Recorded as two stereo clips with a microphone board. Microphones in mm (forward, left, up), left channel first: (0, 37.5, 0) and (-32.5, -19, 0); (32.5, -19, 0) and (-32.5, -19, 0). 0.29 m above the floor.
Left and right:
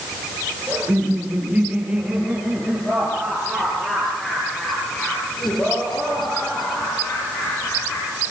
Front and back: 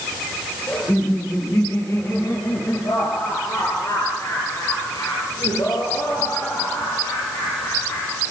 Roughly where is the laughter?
Ahead right.